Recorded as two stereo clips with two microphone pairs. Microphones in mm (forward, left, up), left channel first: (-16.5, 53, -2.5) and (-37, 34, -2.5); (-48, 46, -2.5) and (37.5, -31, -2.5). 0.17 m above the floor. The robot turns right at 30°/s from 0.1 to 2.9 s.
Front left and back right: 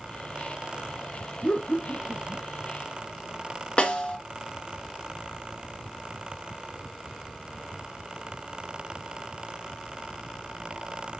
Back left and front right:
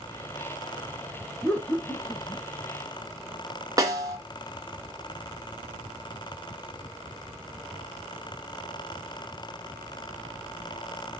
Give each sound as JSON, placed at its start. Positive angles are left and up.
{"t": 1.4, "sound": "laughter", "azimuth_deg": 55, "distance_m": 1.3}
{"t": 3.8, "sound": "a snare drum", "azimuth_deg": 10, "distance_m": 1.6}